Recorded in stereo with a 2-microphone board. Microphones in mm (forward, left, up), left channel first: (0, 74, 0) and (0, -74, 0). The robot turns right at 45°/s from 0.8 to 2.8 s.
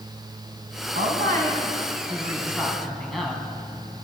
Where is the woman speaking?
80° right, 6 m; by 3.4 s straight ahead, 6 m.